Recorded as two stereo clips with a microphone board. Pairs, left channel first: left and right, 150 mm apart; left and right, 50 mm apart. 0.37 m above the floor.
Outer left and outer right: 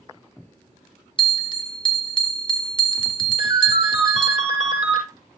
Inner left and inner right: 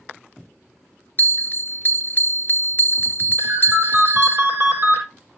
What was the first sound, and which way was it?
A bell, 35° left (ahead or behind).